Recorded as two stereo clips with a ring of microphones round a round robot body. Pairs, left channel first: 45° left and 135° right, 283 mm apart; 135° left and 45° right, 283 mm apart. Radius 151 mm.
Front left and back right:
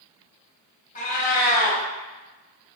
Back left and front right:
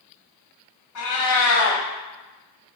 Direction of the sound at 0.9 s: 110° left.